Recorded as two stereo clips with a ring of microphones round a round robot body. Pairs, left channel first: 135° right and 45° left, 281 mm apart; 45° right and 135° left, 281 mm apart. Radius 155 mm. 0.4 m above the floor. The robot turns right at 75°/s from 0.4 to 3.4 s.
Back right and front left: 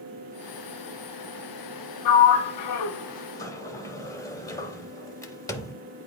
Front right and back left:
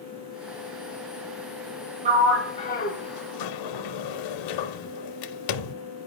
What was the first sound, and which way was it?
A sliding door, 155° right.